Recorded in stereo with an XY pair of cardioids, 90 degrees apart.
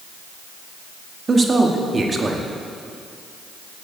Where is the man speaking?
40° right, 2 m.